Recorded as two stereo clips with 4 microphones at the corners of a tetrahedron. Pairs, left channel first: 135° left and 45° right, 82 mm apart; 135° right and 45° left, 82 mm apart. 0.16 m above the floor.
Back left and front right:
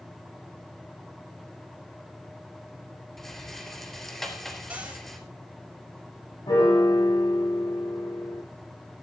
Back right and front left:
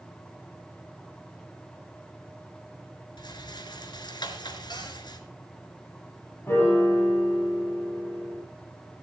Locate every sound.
3.2 s a rattle: 140° right, 3.5 m
4.7 s a cupboard door: 120° right, 4 m
6.5 s a piano: 160° left, 8.5 m